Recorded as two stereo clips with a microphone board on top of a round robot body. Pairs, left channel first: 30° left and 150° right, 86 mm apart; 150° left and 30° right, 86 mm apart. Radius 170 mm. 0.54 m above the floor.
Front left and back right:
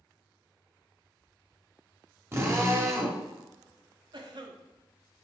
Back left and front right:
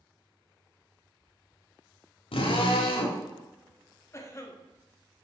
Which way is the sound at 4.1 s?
160° right.